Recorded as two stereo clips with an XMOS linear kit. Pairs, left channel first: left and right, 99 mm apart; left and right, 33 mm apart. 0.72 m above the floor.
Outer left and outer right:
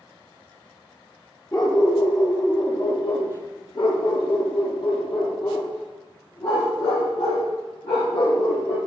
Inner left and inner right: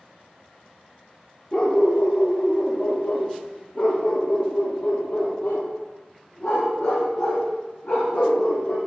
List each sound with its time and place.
1.5 s a dog barking: 40° left (ahead or behind), 4 m; by 8.8 s 75° left (ahead or behind), 7 m